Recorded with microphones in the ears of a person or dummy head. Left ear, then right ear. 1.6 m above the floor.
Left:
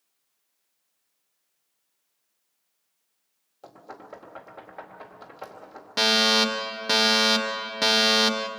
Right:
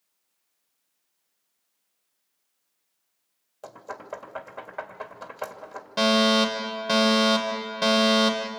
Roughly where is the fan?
No fan in this recording.